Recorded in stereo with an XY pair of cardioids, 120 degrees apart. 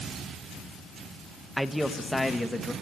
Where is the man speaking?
5° right, 1.7 m; by 2.7 s 10° left, 2.5 m.